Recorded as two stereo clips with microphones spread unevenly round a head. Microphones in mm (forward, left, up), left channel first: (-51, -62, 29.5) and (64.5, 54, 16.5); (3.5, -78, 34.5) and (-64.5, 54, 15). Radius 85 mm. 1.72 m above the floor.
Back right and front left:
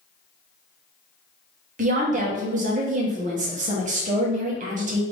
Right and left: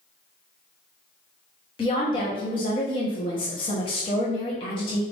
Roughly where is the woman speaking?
Ahead.